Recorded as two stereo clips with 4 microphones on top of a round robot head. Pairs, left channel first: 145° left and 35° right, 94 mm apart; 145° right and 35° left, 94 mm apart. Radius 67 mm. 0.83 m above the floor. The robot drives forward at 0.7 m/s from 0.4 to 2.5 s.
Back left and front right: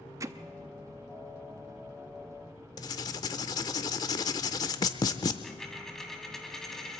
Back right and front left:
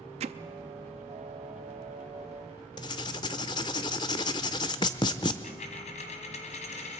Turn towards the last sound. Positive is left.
turn(degrees=-130)